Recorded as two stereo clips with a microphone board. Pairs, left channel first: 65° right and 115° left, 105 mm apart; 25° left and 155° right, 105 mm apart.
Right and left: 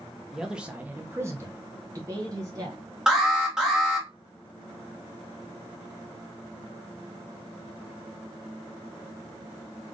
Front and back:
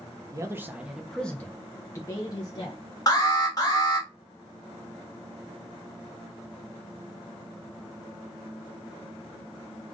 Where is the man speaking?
165° right, 0.9 m; by 2.8 s 65° left, 1.6 m.